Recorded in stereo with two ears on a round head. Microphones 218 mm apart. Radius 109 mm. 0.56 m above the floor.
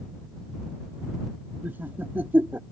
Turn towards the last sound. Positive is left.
turn(degrees=-10)  # may be behind; listen again after turning